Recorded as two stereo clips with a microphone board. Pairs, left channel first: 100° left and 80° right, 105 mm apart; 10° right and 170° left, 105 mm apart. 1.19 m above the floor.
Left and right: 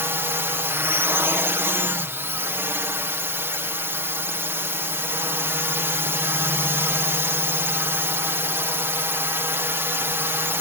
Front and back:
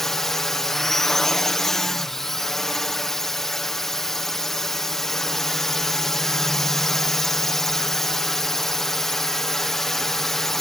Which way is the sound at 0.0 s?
90° right.